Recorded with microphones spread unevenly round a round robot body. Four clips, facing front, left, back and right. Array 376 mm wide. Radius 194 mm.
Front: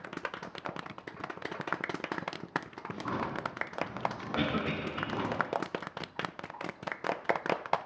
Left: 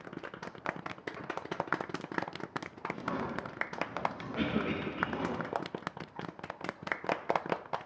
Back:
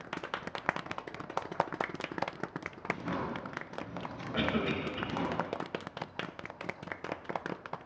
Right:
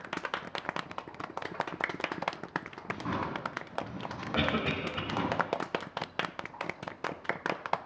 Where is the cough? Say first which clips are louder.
Right 5 dB, back 3 dB; 90° right, 4 m.